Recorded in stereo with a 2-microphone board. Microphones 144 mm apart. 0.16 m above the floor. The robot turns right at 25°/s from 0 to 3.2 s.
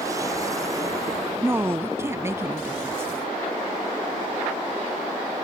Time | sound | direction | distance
1.4 | a woman speaking | 15° right (ahead or behind) | ?